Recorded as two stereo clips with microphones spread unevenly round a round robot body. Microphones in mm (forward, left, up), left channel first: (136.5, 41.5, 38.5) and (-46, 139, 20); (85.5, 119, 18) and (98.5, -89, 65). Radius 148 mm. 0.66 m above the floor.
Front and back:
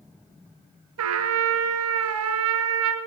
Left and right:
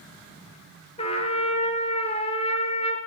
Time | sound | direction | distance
1.0 | a trumpet | 170° left | 1.9 m